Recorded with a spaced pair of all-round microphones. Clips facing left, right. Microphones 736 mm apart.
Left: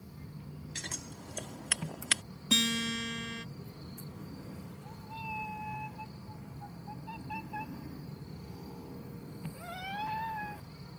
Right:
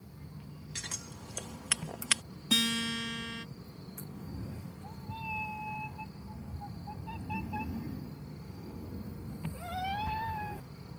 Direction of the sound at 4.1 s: 60° right (ahead or behind).